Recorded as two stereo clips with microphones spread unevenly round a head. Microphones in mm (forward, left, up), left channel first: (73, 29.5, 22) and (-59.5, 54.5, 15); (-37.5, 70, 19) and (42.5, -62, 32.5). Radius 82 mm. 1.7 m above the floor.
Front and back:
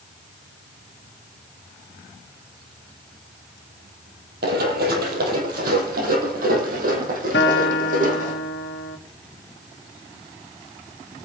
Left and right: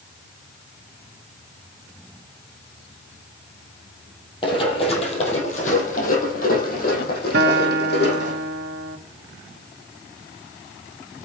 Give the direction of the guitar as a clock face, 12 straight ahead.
1 o'clock.